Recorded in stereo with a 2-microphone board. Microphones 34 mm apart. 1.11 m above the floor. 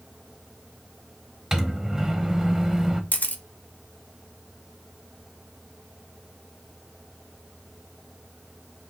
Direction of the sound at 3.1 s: 55° left (ahead or behind).